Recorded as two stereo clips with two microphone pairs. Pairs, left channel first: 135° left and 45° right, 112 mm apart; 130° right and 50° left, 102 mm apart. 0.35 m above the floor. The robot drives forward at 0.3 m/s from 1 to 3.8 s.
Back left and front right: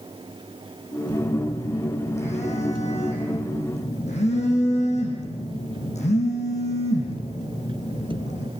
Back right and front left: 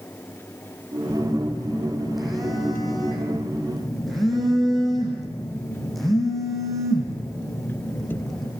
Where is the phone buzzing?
135° left, 8 m; by 8.5 s 140° left, 8.5 m.